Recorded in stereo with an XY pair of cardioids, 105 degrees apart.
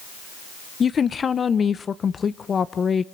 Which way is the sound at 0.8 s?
40° left.